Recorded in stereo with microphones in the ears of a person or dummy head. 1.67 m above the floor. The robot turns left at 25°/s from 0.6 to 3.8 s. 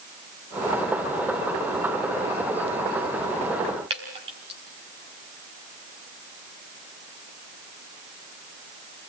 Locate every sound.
3.9 s dripping: 35° right (ahead or behind), 4 m